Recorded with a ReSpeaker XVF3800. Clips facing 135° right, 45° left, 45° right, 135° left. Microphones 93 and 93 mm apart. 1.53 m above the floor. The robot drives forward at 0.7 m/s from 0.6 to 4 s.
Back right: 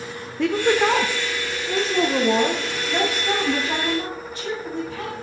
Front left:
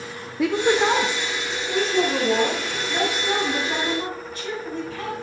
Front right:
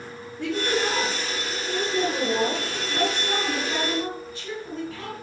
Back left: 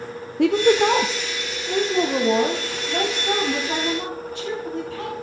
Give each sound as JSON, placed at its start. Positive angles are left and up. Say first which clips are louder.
{"t": 0.4, "sound": "a woman speaking", "louder": "even, back left 9 dB", "azimuth_deg": 130, "distance_m": 0.5}